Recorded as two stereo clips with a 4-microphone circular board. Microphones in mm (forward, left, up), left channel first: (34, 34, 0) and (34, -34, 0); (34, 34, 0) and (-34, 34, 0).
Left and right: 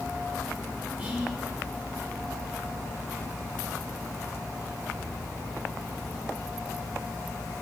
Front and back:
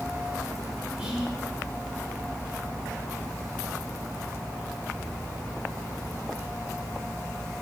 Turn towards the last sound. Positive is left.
turn(degrees=-125)